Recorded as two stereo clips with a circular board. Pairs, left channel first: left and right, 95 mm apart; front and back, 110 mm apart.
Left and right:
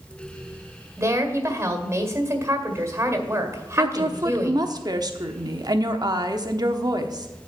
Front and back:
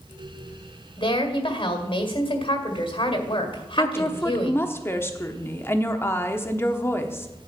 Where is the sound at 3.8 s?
60° right, 1.0 m.